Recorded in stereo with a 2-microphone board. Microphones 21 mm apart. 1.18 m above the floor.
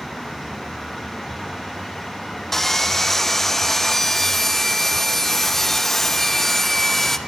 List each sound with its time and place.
2.5 s sawing: 15° left (ahead or behind), 0.8 m